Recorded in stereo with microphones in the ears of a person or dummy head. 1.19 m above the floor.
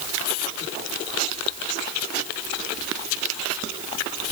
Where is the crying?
No crying in this recording.